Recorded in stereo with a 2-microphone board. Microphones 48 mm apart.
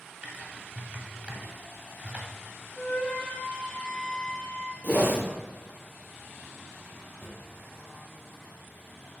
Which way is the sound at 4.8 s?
45° left (ahead or behind).